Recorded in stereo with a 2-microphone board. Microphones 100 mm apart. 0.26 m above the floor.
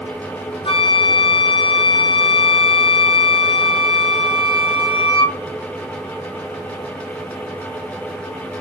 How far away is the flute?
About 2.5 m.